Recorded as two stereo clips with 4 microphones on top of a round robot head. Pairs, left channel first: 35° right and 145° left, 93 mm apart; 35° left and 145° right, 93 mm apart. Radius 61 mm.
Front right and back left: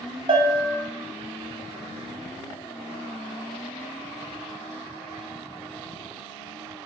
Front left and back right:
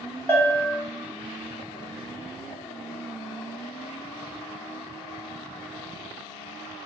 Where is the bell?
105° left, 1.1 m.